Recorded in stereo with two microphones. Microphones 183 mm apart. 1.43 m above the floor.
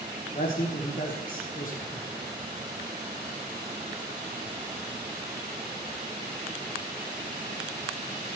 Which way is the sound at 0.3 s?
50° left (ahead or behind).